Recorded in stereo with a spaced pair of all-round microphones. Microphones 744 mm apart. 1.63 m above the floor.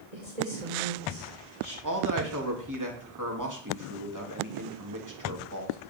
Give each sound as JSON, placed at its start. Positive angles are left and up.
{"t": 0.1, "sound": "a woman speaking", "side_deg": -60, "distance_m": 5.5}
{"t": 1.8, "sound": "a man speaking", "side_deg": -25, "distance_m": 3.5}